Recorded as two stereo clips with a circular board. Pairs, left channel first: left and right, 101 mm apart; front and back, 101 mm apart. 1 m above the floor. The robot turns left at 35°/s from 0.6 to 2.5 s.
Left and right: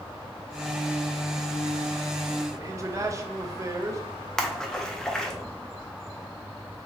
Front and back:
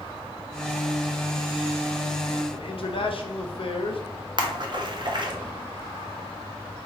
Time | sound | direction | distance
2.5 | a man speaking | 30° right | 0.7 m
4.4 | a splash | 175° left | 0.6 m